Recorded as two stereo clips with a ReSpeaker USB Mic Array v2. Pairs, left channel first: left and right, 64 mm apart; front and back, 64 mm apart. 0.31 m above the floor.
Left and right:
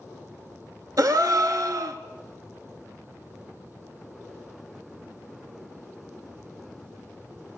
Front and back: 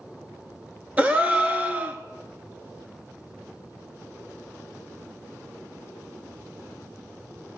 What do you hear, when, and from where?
1.0 s a gasp: 115° right, 0.8 m